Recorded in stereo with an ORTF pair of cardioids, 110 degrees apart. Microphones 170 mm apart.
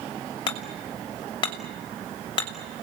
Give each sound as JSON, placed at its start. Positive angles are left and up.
{"t": 0.5, "sound": "hammering", "azimuth_deg": 25, "distance_m": 6.0}